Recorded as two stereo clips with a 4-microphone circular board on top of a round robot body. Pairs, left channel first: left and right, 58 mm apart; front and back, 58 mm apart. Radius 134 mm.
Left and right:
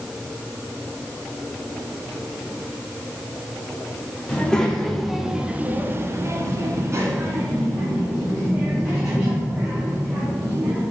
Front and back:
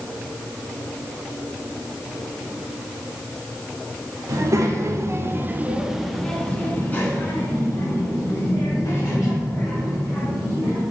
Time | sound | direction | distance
4.3 | a child speaking | 165° left | 1.5 m